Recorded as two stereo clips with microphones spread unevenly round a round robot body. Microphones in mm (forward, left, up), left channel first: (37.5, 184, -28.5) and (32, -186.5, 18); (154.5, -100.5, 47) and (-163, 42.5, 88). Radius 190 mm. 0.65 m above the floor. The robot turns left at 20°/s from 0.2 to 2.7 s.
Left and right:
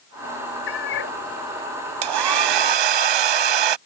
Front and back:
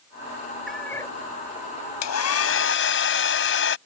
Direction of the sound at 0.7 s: 65° left.